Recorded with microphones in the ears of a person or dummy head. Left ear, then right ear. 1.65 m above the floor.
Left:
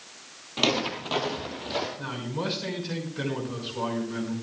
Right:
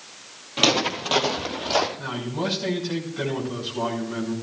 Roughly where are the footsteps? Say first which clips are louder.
Right 5 dB; centre.